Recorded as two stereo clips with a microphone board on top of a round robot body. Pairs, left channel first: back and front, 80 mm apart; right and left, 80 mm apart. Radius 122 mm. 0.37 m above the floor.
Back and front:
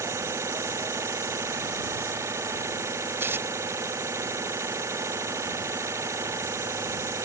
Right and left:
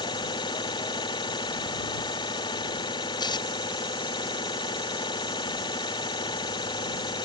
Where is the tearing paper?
65° right.